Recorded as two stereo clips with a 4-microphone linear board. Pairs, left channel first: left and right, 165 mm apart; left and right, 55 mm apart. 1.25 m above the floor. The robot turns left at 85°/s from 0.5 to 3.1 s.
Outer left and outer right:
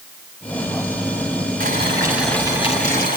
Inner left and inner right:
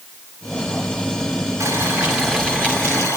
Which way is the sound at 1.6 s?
125° right.